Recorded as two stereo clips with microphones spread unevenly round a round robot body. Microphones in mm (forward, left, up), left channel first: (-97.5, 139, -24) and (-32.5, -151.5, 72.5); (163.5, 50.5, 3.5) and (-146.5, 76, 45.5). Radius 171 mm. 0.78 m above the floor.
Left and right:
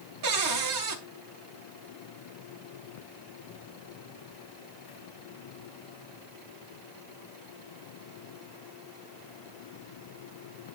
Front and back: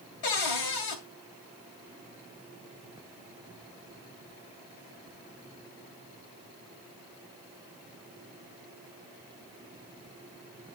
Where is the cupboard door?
35° right, 2.5 m.